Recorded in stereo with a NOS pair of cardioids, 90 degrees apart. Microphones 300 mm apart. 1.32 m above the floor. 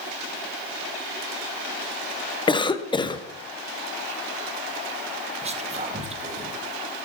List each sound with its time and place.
2.5 s a cough: 15° left, 0.7 m
5.4 s whispering: 20° right, 1.2 m